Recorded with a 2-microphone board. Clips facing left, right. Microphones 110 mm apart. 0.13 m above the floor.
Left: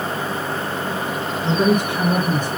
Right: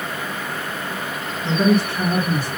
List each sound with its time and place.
1.4 s a woman speaking: 15° left (ahead or behind), 1.4 m; by 2.5 s 20° left (ahead or behind), 2.5 m